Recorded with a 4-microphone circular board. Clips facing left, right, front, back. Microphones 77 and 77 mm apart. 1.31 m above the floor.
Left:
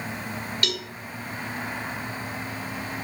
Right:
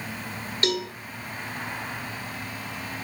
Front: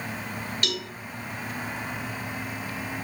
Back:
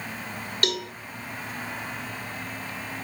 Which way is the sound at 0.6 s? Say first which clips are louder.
Right 8 dB, back 7 dB; 150° right.